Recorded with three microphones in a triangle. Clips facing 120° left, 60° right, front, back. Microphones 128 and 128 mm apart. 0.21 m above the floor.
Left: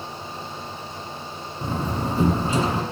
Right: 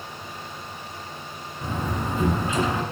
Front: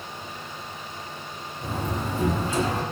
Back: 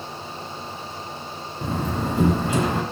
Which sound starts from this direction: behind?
A door slam, at 1.6 s.